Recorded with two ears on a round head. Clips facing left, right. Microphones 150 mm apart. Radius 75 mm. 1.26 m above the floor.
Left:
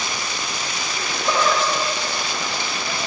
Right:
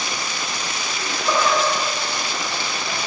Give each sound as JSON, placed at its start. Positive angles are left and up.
{"t": 1.0, "sound": "laughter", "side_deg": 5, "distance_m": 2.0}